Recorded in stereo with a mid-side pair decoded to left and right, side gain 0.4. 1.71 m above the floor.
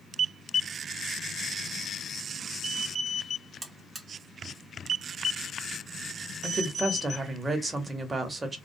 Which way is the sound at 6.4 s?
35° right.